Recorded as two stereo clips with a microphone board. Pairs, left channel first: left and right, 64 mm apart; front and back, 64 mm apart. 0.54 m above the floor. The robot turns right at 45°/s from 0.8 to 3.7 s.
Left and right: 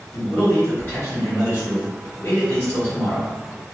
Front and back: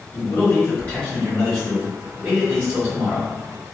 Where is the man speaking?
45° left, 1.5 m; by 3.3 s 155° left, 1.5 m.